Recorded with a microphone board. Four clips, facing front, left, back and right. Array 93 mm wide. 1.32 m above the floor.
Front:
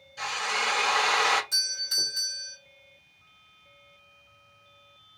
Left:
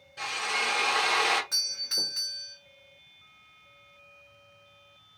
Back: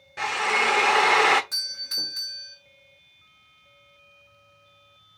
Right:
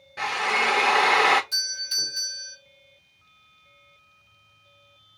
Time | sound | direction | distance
0.2 | a drill | 140° right | 0.8 m
1.5 | a doorbell | 110° left | 2 m